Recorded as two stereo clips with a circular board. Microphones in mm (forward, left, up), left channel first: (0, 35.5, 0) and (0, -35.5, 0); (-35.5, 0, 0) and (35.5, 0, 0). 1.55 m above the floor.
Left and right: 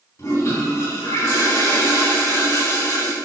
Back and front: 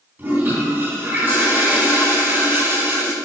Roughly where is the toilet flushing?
Ahead left.